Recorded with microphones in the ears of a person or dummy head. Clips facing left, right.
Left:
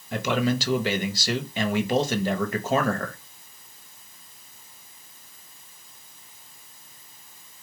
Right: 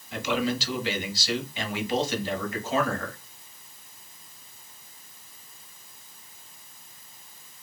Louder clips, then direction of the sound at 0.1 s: Left 3 dB; 45° left (ahead or behind).